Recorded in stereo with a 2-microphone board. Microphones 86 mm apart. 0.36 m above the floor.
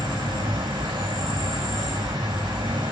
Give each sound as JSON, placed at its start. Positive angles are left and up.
{"t": 0.0, "sound": "an insect", "side_deg": -80, "distance_m": 5.0}